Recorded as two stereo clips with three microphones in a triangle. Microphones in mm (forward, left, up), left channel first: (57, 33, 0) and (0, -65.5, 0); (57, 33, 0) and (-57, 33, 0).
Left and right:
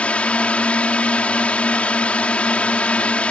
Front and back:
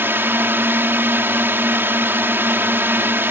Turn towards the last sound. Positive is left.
turn(degrees=130)